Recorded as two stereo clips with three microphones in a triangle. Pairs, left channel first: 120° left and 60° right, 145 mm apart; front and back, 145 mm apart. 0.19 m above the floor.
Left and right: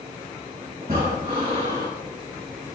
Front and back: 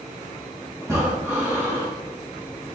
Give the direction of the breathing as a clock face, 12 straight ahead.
4 o'clock.